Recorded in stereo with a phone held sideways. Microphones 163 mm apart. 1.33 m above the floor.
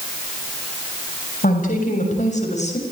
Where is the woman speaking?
55° left (ahead or behind), 7 m; by 2.8 s 45° left (ahead or behind), 7 m.